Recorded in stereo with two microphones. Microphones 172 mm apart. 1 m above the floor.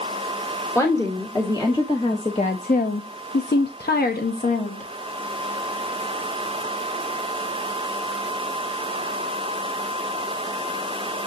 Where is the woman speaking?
15° left (ahead or behind), 2 m; by 4.8 s 45° left (ahead or behind), 1.5 m.